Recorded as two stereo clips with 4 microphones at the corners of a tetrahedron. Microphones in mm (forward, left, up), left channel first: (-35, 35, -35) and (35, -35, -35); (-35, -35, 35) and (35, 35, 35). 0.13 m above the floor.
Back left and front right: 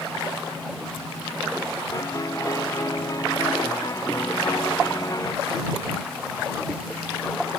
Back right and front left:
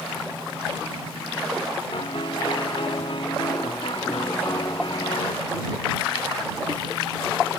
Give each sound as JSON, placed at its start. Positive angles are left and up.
{"t": 1.9, "sound": "a piano", "azimuth_deg": -170}